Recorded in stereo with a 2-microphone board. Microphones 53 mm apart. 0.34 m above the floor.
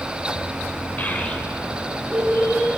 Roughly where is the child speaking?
Left.